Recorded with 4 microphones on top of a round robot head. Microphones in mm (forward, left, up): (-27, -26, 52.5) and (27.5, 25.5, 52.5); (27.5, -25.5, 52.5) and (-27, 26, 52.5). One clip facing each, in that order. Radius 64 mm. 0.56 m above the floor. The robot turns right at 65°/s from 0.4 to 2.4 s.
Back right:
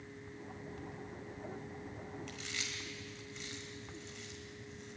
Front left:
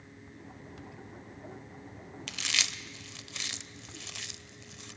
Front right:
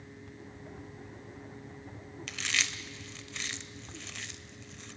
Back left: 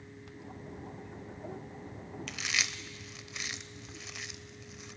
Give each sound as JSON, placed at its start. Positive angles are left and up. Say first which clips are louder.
{"t": 2.3, "sound": "chewing", "louder": "front left 7 dB, front right 1 dB", "azimuth_deg": 45, "distance_m": 0.6}